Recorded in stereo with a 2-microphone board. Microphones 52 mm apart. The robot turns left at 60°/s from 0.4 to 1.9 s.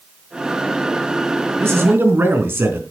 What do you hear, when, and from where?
1.6 s a man speaking: 60° right (ahead or behind), 3.5 m; by 2.8 s 50° right (ahead or behind), 3.5 m